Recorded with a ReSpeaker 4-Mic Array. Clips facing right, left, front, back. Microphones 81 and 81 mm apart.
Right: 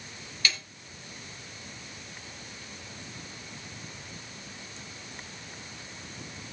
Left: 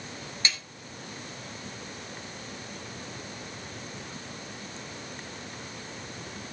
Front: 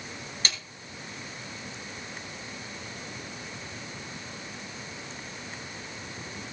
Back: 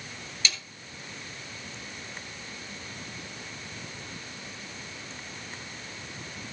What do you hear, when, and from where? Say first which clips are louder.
0.5 s a snare drum: right 1 dB, back 1 dB; 35° left, 2.5 m